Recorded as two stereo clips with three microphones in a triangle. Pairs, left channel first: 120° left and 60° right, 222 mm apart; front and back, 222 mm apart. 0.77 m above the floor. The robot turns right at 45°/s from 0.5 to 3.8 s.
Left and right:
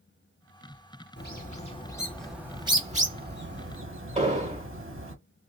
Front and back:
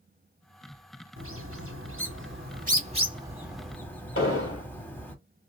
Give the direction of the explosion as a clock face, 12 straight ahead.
12 o'clock.